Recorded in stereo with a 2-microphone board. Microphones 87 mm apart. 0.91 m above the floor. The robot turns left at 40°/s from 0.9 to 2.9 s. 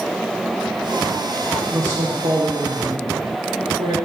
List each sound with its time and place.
1.7 s a man speaking: 35° right, 1.6 m; by 4.0 s 85° right, 1.6 m